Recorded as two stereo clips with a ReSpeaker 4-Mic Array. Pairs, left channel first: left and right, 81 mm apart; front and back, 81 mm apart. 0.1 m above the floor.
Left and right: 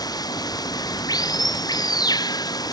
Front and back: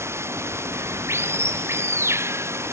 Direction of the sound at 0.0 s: 125° left.